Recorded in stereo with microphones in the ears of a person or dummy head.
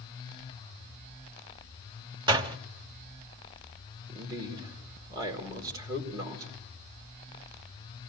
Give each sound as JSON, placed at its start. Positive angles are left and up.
{"t": 2.3, "sound": "a door slam", "side_deg": -20, "distance_m": 1.1}
{"t": 4.1, "sound": "a man speaking", "side_deg": -25, "distance_m": 4.5}